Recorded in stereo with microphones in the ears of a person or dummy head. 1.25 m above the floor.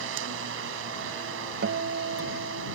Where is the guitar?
60° right (ahead or behind).